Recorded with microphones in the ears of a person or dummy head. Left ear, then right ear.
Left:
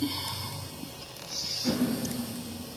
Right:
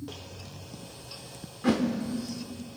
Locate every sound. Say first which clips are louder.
1.6 s a whoosh: right 7 dB; 45° right (ahead or behind), 1.3 m